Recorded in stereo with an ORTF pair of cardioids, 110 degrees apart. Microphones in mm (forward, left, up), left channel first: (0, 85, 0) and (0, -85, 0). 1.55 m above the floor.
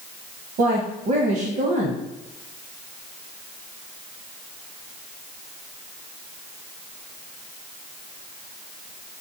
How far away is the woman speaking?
About 0.8 m.